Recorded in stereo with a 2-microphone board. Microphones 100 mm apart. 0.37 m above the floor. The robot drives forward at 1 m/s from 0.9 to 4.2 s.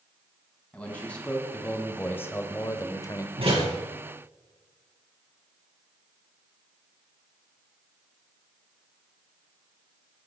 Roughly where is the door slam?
Right.